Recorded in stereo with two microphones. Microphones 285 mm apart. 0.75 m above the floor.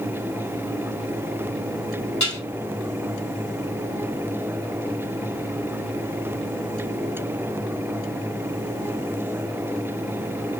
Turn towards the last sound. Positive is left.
turn(degrees=60)  # may be behind; listen again after turning